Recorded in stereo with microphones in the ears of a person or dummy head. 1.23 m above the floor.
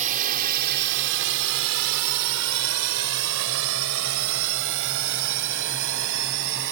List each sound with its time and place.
0.0 s a drone: 40° right (ahead or behind); by 6.7 s 60° right (ahead or behind)